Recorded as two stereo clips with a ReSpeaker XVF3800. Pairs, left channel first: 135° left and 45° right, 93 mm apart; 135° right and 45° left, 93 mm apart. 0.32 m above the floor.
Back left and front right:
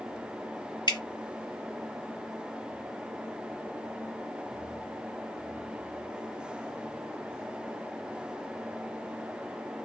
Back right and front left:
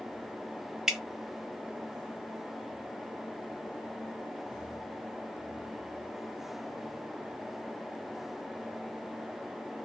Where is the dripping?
130° left, 0.7 m.